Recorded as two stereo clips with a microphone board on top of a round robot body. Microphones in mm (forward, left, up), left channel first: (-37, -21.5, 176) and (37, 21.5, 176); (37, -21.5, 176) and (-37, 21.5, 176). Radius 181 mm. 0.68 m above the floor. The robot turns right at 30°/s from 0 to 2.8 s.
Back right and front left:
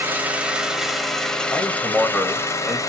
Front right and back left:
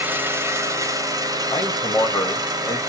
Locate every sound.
0.0 s an engine running: 90° left, 0.9 m; by 2.9 s 175° left, 0.9 m
1.5 s a man speaking: 85° right, 1.4 m; by 2.8 s 45° right, 1.4 m